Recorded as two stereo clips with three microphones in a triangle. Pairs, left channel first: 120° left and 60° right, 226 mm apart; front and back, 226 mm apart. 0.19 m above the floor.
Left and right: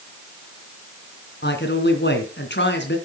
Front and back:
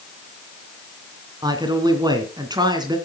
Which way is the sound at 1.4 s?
115° left.